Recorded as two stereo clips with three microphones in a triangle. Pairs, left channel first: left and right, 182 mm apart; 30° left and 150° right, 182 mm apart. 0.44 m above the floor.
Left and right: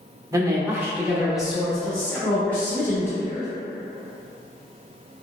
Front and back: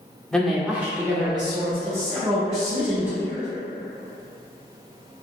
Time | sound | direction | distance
0.3 | a man speaking | 50° right | 0.8 m